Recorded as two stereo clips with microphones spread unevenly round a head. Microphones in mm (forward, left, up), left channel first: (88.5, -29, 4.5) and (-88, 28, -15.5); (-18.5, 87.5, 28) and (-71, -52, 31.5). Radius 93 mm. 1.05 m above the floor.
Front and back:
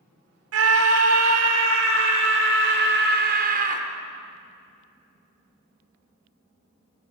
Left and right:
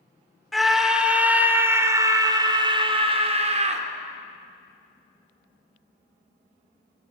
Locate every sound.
0.5 s a scream: 160° left, 3.5 m; by 3.9 s 150° right, 3.5 m